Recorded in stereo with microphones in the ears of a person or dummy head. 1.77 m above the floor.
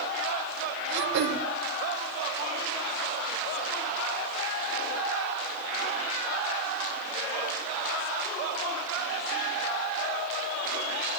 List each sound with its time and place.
0.9 s throat clearing: 60° right (ahead or behind), 0.8 m